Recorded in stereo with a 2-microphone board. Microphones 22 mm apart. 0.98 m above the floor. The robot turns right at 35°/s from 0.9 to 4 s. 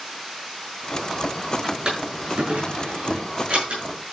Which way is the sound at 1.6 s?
45° right (ahead or behind).